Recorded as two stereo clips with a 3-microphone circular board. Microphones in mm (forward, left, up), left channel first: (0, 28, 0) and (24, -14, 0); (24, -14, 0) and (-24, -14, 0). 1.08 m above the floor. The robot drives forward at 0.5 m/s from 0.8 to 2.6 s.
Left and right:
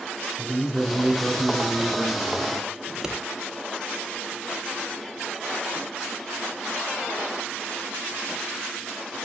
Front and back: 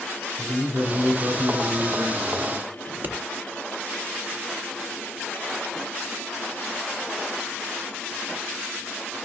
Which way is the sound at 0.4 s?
145° right.